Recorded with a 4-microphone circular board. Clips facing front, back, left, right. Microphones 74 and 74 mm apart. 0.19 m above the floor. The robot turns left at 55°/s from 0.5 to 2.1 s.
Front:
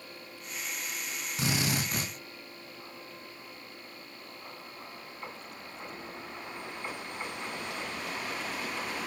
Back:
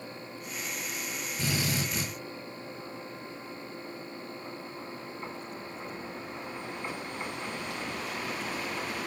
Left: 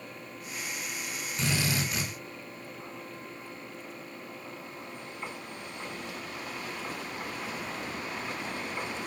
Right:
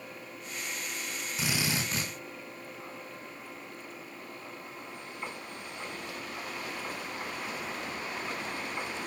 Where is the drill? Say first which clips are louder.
Front 1 dB, left 2 dB; 5° right, 5.5 m; by 2.1 s 45° right, 5.5 m.